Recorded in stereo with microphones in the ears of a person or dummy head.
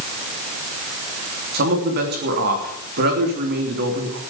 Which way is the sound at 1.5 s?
50° right (ahead or behind).